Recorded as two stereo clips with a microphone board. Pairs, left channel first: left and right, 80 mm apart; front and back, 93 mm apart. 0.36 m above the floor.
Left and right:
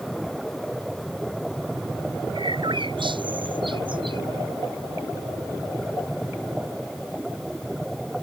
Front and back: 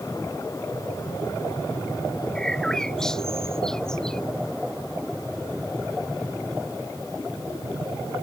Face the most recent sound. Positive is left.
turn(degrees=-85)